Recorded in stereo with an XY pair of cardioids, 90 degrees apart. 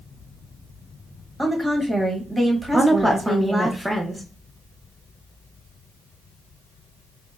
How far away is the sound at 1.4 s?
About 1.1 m.